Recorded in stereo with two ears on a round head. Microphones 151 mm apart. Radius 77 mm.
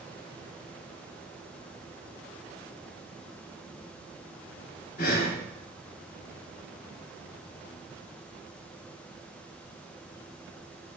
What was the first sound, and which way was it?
Breathing, 55° left (ahead or behind).